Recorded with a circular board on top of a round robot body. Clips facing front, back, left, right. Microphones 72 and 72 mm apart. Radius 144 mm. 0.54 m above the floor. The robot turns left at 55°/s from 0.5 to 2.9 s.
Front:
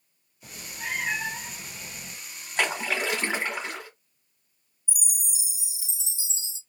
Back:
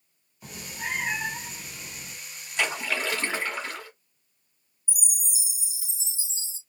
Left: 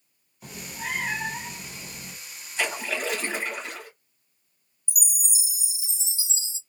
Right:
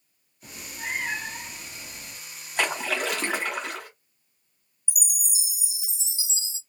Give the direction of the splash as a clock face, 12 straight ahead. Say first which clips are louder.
Front 1 dB, right 2 dB; 2 o'clock.